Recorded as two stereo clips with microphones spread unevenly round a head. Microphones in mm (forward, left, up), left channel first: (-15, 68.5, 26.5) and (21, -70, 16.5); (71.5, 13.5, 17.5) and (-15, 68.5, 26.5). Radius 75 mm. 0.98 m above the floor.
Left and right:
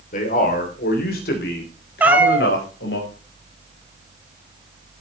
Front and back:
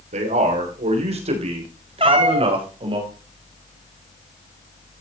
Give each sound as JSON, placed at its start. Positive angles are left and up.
{"t": 0.1, "sound": "a man speaking", "azimuth_deg": 145, "distance_m": 3.0}
{"t": 2.0, "sound": "a cat meowing", "azimuth_deg": -155, "distance_m": 1.2}